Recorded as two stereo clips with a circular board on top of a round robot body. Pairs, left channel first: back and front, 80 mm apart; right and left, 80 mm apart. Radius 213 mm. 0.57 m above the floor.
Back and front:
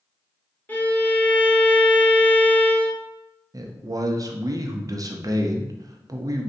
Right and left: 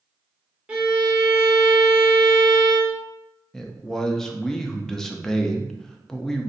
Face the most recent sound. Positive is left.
turn(degrees=-10)